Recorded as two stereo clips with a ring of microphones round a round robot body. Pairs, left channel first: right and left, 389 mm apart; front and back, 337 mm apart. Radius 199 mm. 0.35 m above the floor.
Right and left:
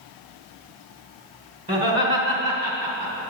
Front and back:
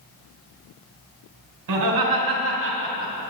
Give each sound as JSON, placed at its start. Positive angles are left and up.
{"t": 1.7, "sound": "laughter", "azimuth_deg": 160, "distance_m": 2.5}